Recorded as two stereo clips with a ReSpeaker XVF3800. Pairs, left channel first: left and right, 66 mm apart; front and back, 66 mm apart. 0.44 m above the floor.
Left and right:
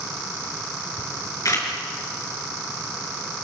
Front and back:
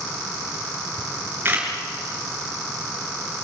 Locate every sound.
1.0 s a camera shutter: 120° left, 5.5 m